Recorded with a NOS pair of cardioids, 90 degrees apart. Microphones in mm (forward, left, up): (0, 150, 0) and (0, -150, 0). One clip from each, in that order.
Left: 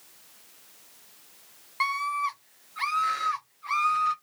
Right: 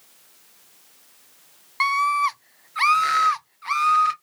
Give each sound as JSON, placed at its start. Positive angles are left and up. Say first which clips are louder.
{"t": 1.8, "sound": "a scream", "louder": "right 7 dB", "azimuth_deg": -20, "distance_m": 0.5}